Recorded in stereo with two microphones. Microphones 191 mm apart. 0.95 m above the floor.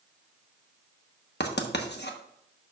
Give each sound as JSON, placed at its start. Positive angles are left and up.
{"t": 1.4, "sound": "writing", "side_deg": 60, "distance_m": 1.1}